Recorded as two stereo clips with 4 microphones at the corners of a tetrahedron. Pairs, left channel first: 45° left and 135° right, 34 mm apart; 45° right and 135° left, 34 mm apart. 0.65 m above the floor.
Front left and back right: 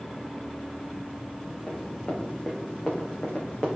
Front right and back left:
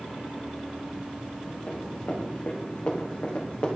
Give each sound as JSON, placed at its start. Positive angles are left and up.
{"t": 1.7, "sound": "running footsteps", "azimuth_deg": -20, "distance_m": 3.5}